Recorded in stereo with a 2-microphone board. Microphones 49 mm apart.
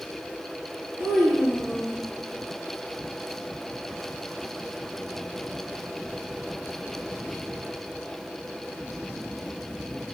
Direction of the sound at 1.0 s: 65° right (ahead or behind).